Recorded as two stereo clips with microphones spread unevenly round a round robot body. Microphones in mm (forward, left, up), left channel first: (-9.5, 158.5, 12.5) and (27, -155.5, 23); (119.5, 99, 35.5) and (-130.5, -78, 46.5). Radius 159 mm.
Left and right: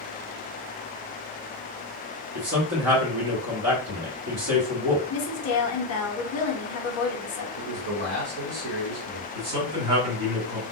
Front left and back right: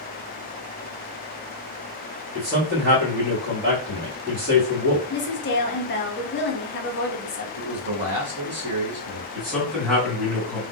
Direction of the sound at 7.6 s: 115° right.